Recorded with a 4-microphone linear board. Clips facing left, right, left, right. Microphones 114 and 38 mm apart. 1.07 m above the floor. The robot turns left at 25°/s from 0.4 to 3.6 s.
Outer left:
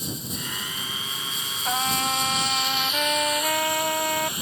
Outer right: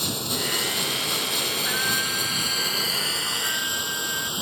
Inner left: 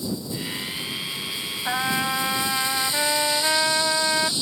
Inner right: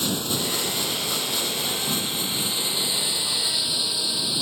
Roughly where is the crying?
I don't hear crying.